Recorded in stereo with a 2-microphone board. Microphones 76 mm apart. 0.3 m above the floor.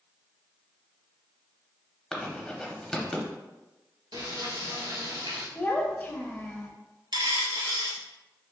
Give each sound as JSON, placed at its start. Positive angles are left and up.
{"t": 2.1, "sound": "writing", "side_deg": 10, "distance_m": 0.7}
{"t": 4.1, "sound": "frying", "side_deg": -70, "distance_m": 1.2}
{"t": 5.5, "sound": "a child speaking", "side_deg": 25, "distance_m": 0.5}
{"t": 7.1, "sound": "a dropped coin", "side_deg": -75, "distance_m": 0.6}